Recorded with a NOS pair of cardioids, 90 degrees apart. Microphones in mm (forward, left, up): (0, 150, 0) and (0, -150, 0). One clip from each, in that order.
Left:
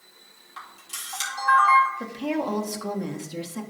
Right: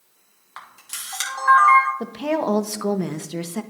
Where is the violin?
I don't hear a violin.